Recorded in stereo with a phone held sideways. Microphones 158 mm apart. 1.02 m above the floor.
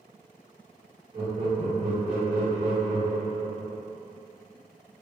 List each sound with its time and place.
1.1 s laughter: 45° right (ahead or behind), 1.7 m